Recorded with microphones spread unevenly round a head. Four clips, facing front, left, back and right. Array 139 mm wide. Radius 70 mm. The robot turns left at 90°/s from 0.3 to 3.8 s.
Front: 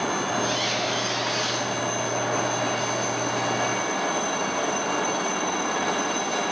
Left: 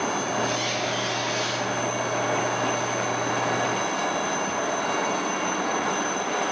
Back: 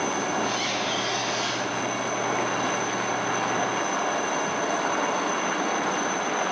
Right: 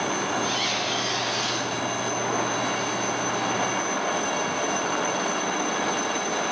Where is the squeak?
50° right, 5.5 m; by 1.7 s 165° right, 5.5 m.